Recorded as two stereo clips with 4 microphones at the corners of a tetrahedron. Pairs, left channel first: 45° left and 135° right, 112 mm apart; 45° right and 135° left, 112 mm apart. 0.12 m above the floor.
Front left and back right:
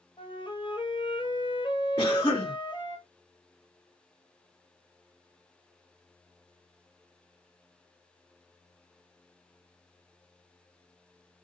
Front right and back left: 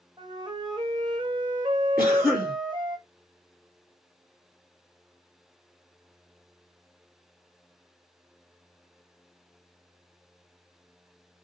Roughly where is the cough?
Ahead left.